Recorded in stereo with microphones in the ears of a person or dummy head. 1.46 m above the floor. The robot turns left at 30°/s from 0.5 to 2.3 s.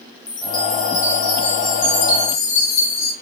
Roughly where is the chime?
Behind left.